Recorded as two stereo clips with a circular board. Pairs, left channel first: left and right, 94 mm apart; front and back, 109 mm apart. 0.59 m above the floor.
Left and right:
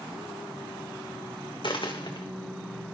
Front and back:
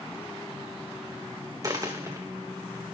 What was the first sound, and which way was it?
A dropped coin, 125° left.